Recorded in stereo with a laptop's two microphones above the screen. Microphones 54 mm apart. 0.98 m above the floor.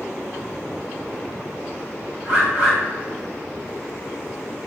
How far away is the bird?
About 1.0 m.